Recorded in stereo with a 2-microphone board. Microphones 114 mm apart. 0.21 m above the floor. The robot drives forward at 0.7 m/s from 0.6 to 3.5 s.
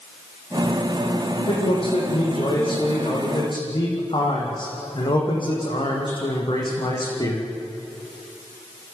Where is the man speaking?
55° left (ahead or behind), 7.5 m; by 7.5 s 45° left (ahead or behind), 8.5 m.